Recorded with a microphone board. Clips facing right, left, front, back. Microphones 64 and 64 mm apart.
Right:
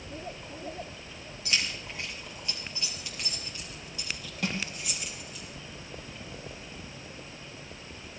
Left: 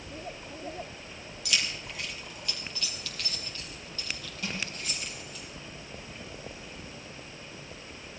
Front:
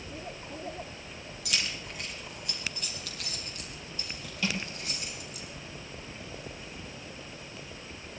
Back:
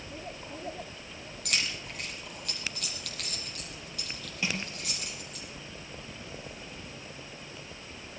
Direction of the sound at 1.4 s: 145° right.